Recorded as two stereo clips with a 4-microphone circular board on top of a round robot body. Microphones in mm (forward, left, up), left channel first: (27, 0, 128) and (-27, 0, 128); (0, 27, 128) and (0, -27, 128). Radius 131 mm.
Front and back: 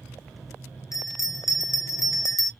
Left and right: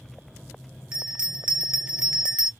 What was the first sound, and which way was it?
A bell, 20° right.